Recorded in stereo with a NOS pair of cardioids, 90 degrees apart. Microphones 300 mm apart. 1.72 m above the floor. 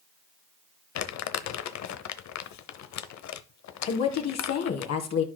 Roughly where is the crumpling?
Ahead left.